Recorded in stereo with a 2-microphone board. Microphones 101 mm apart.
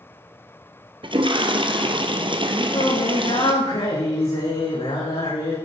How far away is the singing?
About 5.5 m.